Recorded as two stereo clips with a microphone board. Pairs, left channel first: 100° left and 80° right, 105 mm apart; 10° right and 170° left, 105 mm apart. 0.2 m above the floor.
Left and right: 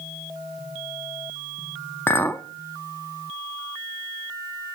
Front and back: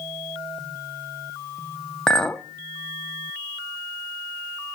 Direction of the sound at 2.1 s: 60° left.